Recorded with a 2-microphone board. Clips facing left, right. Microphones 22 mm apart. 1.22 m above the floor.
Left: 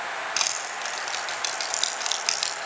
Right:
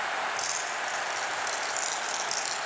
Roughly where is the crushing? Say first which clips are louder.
Left 3 dB; left.